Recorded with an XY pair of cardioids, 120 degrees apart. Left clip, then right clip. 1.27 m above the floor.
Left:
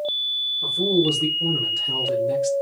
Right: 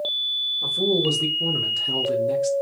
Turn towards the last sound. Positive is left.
turn(degrees=0)